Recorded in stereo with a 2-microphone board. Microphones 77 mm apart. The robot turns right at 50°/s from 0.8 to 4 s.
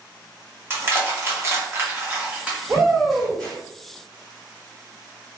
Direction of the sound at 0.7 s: 30° right (ahead or behind).